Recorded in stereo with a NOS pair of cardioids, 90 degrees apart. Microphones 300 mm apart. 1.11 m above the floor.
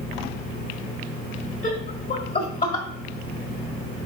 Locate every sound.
1.6 s laughter: 40° left, 1.8 m; by 2.9 s 25° left, 1.4 m